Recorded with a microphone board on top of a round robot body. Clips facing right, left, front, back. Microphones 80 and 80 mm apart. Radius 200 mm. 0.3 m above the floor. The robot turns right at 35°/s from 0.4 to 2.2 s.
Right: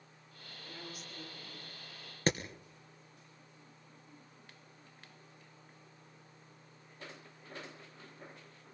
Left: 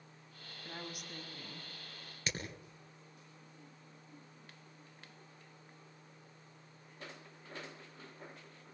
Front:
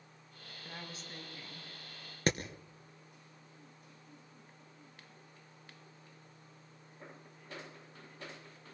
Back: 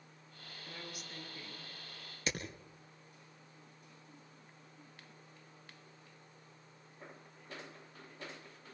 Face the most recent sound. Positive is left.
turn(degrees=-40)